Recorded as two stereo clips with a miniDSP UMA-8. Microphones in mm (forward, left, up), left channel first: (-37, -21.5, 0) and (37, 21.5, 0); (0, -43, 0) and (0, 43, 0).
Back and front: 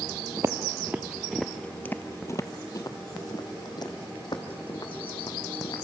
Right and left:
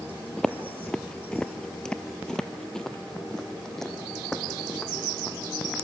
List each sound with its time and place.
0.4 s footsteps: 5° right, 0.9 m; by 5.8 s 175° right, 2.5 m